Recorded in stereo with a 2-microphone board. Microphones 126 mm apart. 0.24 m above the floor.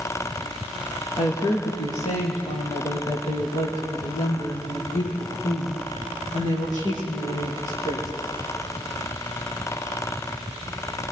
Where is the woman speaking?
50° left (ahead or behind), 4.5 m; by 8.1 s 80° left, 9.5 m.